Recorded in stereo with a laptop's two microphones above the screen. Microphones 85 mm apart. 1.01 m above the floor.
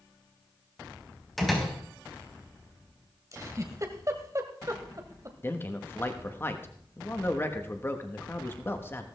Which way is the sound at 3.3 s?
40° right (ahead or behind).